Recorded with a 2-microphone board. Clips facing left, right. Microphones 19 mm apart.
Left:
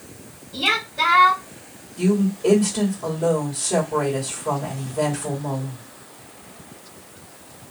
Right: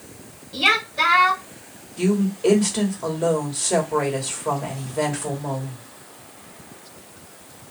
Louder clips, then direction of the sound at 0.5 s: Right 2 dB; 35° right (ahead or behind).